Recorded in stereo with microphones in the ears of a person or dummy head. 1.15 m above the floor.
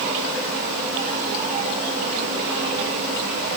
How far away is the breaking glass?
I don't hear breaking glass.